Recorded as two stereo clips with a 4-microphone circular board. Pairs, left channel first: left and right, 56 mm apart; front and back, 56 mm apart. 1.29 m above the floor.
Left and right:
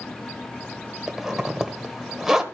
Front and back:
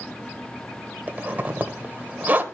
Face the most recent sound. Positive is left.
turn(degrees=-165)